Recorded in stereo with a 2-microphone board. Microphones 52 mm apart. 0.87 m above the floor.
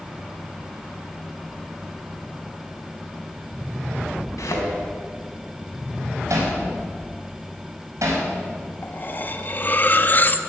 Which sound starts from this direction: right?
Hammering, at 6.3 s.